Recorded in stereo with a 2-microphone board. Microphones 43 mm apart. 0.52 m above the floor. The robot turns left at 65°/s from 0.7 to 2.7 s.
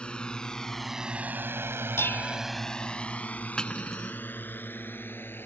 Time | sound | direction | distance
0.0 | a drone | 25° left (ahead or behind) | ?
2.0 | dishes clattering | 75° left (ahead or behind) | ?
3.6 | cutlery clinking | 15° left (ahead or behind) | ?